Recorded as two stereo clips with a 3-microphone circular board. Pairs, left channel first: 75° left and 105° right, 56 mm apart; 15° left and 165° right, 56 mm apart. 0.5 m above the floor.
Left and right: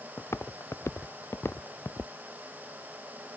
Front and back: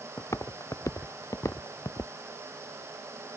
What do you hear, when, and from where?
0.2 s footsteps: 40° left; by 2.1 s 35° left